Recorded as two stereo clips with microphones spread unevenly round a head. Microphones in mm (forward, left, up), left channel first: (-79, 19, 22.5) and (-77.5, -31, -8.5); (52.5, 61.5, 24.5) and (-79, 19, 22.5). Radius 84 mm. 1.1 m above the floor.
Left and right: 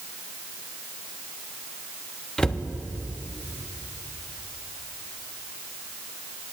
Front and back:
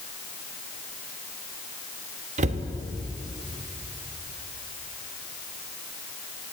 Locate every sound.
2.4 s a cupboard door: 165° left, 1.1 m